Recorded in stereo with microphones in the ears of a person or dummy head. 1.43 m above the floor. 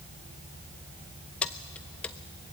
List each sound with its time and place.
1.4 s keys jangling: 5° left (ahead or behind), 0.7 m